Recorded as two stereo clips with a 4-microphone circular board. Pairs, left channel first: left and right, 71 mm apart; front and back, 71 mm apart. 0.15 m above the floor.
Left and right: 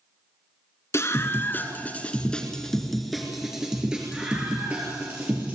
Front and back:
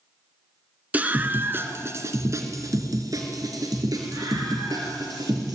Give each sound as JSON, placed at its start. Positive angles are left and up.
{"t": 0.9, "sound": "a scream", "azimuth_deg": 120, "distance_m": 2.0}